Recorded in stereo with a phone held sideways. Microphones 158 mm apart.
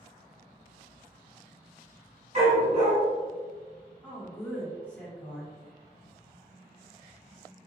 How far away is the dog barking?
About 1.5 m.